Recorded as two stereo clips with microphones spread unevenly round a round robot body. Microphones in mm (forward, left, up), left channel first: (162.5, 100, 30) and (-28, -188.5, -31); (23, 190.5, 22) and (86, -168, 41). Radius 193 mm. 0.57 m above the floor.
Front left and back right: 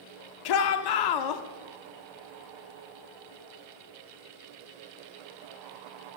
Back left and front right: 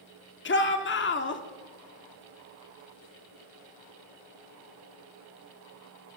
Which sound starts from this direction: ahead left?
A shout, at 0.5 s.